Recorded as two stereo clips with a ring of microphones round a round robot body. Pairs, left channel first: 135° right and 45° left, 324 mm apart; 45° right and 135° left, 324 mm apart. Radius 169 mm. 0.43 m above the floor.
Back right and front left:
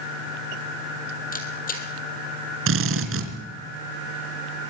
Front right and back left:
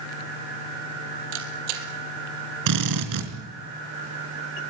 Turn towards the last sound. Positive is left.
turn(degrees=100)